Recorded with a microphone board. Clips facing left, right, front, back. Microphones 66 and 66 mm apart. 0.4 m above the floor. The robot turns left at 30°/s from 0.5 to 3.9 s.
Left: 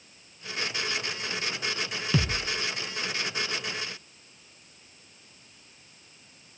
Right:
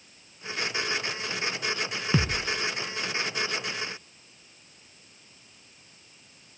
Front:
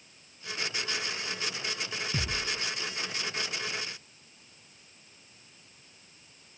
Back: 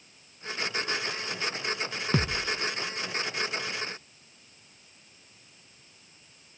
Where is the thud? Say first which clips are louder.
Right 1 dB, back 7 dB; 155° right, 1.7 m; by 2.6 s 170° right, 1.7 m.